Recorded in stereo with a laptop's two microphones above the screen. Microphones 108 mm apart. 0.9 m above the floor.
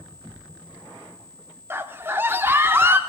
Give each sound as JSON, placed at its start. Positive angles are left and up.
{"t": 1.7, "sound": "a scream", "side_deg": -20, "distance_m": 0.8}